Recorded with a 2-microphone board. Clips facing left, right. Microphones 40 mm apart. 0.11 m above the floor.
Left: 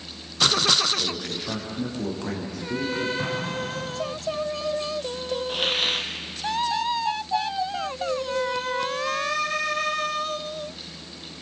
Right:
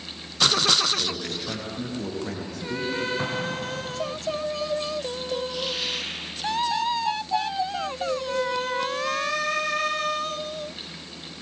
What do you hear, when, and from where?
1.0 s a man speaking: centre (ahead or behind), 9 m
3.2 s an explosion: 25° right (ahead or behind), 6.5 m
5.5 s a hiss: 50° left (ahead or behind), 2.5 m